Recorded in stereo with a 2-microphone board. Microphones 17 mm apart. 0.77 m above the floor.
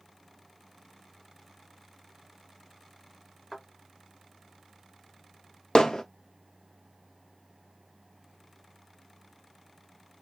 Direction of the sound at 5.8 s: 55° left (ahead or behind).